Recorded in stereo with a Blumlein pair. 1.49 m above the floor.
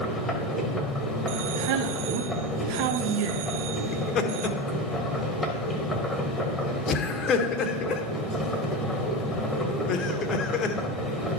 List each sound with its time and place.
0.0 s a machine running: 10° left, 1.8 m
1.3 s a man speaking: 45° right, 0.8 m
3.9 s laughter: 25° left, 1.5 m